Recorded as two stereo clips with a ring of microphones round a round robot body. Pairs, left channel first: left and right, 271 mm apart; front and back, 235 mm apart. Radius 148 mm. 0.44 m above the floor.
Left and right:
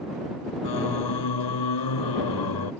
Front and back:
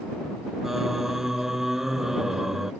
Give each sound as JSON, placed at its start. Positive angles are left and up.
{"t": 0.6, "sound": "singing", "azimuth_deg": 90}